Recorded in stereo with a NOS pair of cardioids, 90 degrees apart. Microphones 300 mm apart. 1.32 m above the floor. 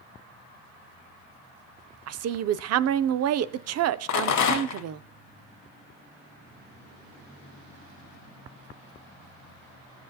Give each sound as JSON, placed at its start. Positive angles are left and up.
{"t": 2.1, "sound": "a woman speaking", "azimuth_deg": -60, "distance_m": 0.5}
{"t": 4.1, "sound": "a rattle", "azimuth_deg": 65, "distance_m": 1.4}